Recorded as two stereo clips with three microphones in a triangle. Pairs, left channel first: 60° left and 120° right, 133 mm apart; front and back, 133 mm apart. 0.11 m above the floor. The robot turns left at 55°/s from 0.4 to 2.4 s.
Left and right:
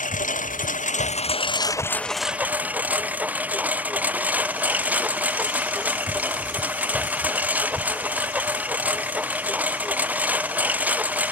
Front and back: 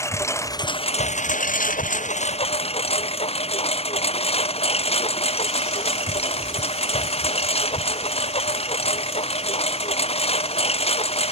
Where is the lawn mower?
70° left; by 11.3 s 40° right.